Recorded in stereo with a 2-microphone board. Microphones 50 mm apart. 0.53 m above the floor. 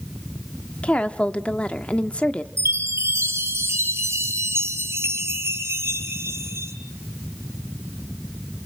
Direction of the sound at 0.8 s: 25° left (ahead or behind).